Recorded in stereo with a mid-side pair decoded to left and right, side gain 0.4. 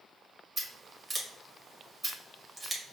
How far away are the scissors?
About 1.7 m.